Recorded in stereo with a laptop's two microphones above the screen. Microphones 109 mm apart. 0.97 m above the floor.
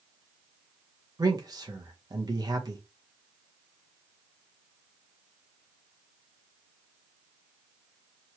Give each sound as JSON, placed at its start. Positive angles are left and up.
{"t": 1.2, "sound": "a man speaking", "side_deg": -35, "distance_m": 0.7}